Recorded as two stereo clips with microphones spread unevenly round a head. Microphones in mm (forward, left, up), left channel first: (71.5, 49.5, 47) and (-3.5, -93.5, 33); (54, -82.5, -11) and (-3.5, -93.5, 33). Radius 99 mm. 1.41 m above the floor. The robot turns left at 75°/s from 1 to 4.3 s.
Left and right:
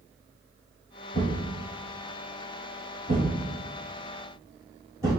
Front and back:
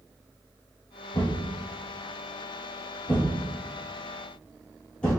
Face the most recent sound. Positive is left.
turn(degrees=180)